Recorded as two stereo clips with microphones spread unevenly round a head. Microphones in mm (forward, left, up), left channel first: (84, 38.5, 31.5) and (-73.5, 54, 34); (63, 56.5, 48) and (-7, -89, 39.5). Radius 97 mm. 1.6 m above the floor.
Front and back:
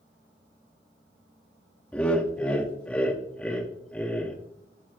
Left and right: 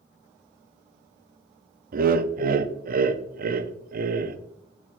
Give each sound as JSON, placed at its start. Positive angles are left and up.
{"t": 1.9, "sound": "laughter", "azimuth_deg": -90, "distance_m": 0.6}